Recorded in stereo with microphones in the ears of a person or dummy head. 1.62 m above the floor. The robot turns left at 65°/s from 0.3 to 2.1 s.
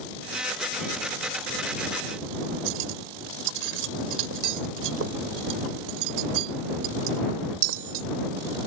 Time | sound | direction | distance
2.7 | cutlery clinking | 80° right | ?